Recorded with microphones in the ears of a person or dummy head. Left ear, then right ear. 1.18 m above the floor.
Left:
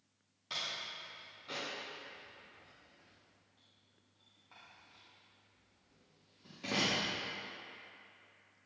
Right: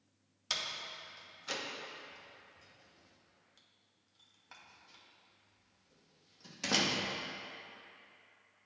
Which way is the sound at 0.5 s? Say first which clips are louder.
Right 2 dB; 75° right (ahead or behind).